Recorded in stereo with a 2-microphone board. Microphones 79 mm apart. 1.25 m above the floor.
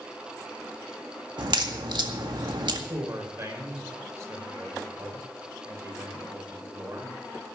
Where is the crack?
70° right (ahead or behind), 1.9 m.